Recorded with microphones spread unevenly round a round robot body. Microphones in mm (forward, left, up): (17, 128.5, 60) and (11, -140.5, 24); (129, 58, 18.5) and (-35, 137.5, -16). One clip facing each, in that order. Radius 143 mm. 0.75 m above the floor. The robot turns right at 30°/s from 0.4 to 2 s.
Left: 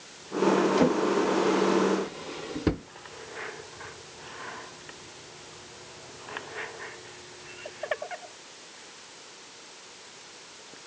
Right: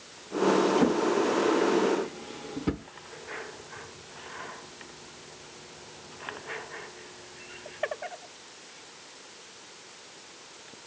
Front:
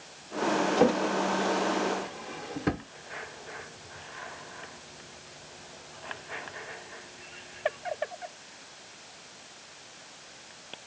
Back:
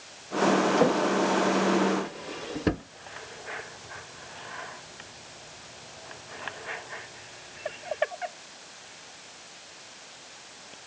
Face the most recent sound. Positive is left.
turn(degrees=100)